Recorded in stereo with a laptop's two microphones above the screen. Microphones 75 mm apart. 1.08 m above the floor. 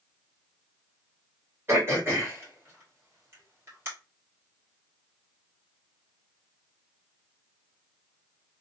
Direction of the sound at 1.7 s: 35° right (ahead or behind).